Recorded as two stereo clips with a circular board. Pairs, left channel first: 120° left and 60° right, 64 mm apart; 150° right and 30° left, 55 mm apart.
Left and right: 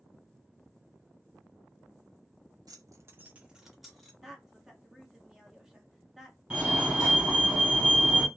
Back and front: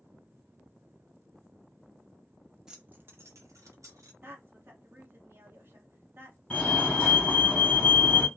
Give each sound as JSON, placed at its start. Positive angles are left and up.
{"t": 2.7, "sound": "keys jangling", "azimuth_deg": -50, "distance_m": 0.6}
{"t": 4.2, "sound": "a woman speaking", "azimuth_deg": 25, "distance_m": 1.0}
{"t": 6.5, "sound": "a fire alarm", "azimuth_deg": -110, "distance_m": 1.7}